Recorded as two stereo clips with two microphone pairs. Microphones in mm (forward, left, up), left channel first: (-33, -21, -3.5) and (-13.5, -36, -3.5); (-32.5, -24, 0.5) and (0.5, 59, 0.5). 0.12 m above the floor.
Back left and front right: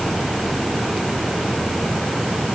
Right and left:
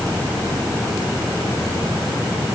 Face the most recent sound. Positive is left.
No sound to turn to.